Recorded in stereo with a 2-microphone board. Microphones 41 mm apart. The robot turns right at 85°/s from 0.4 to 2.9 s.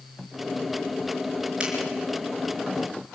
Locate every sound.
1.6 s a finger snap: 25° right (ahead or behind), 4.5 m; by 1.7 s 35° right (ahead or behind), 4.5 m